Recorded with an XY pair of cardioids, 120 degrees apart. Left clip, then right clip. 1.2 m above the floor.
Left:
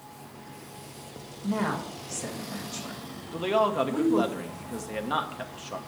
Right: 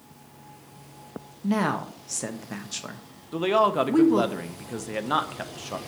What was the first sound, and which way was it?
A woman speaking, 55° right.